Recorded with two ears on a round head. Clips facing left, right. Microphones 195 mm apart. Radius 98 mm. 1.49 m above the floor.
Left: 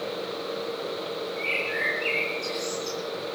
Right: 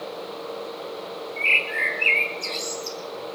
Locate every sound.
1.4 s a bird: 45° right (ahead or behind), 7 m